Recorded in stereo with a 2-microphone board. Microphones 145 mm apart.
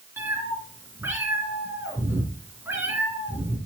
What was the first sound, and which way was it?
A cat meowing, 15° right (ahead or behind).